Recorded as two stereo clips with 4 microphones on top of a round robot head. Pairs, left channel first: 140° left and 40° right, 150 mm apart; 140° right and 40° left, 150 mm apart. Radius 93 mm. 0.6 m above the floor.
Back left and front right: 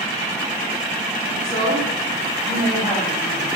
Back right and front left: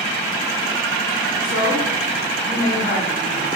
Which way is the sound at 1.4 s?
130° right.